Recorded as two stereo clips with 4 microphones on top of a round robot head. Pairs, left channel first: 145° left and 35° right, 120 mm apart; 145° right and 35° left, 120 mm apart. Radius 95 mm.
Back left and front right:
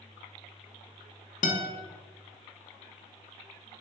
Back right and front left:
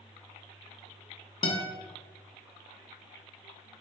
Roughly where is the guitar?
Behind.